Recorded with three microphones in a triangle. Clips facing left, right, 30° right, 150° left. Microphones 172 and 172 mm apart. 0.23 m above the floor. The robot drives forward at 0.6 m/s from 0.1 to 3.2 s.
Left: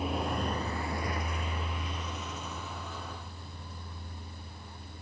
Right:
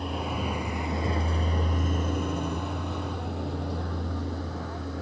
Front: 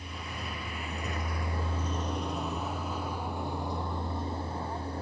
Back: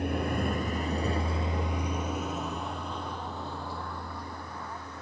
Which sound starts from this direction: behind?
A vehicle, at 0.0 s.